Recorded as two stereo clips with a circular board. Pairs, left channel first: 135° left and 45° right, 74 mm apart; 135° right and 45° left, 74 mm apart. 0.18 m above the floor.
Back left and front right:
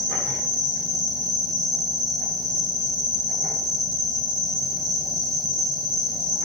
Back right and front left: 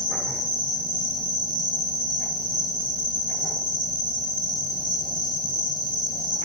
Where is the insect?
135° right, 8 m.